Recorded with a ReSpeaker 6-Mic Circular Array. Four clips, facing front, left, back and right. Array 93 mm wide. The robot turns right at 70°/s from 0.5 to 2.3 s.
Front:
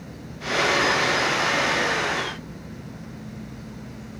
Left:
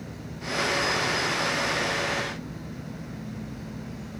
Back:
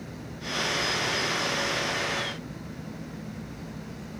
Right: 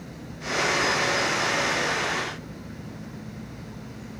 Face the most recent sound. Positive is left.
No sound to turn to.